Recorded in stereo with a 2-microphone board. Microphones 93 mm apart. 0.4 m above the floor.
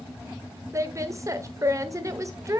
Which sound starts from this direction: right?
A woman speaking, at 0.7 s.